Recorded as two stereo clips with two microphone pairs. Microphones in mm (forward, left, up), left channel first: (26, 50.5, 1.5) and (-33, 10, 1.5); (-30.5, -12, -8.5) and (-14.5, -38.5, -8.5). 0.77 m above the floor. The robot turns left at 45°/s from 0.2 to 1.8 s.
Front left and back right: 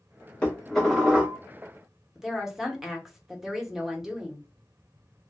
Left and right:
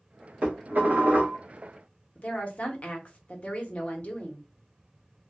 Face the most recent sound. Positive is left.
turn(degrees=130)